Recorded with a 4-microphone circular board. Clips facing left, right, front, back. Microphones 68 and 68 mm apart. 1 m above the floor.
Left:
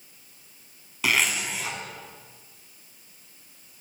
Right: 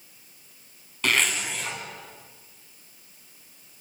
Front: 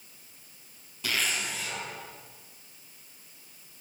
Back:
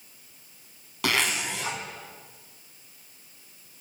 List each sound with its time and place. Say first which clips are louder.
1.0 s a zipper: even, back 5 dB; 175° left, 4 m